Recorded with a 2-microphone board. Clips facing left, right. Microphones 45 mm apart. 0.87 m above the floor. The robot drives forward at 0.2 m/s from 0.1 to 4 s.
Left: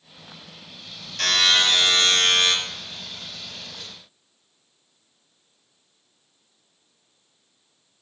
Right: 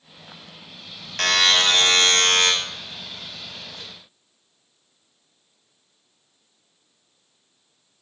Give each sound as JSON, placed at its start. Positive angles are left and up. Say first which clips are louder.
{"t": 1.2, "sound": "a buzzer", "louder": "right 1 dB", "side_deg": -50, "distance_m": 0.5}